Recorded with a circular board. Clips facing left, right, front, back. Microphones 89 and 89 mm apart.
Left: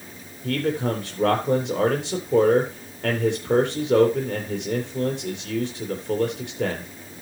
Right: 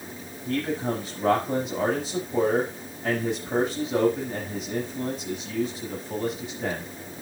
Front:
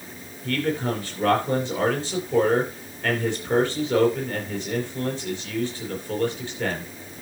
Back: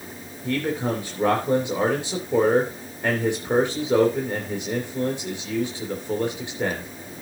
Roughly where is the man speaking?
Left.